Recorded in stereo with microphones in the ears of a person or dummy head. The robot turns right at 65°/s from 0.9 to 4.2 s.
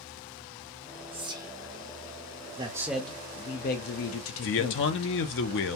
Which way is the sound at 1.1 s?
30° right (ahead or behind).